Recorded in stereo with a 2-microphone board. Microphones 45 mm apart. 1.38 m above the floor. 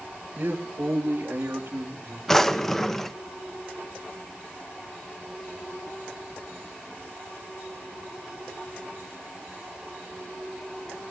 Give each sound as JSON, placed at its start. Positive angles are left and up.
{"t": 0.4, "sound": "a man speaking", "side_deg": -45, "distance_m": 2.0}
{"t": 2.3, "sound": "a drawer", "side_deg": 10, "distance_m": 0.6}